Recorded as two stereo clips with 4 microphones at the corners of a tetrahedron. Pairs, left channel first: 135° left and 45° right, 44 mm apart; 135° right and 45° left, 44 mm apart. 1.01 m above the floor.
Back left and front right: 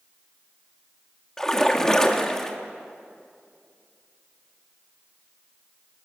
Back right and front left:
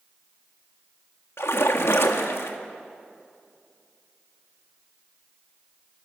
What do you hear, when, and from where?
1.4 s a splash: 145° right, 1.7 m